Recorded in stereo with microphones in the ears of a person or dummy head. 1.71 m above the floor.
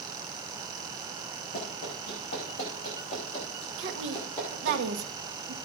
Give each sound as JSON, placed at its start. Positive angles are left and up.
{"t": 1.5, "sound": "running footsteps", "side_deg": 50, "distance_m": 7.5}
{"t": 3.8, "sound": "a woman speaking", "side_deg": -65, "distance_m": 1.4}